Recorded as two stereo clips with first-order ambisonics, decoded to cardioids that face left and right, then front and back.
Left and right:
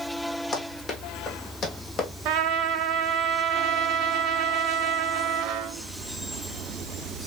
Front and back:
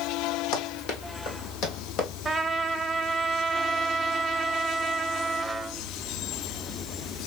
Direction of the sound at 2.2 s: 100° right.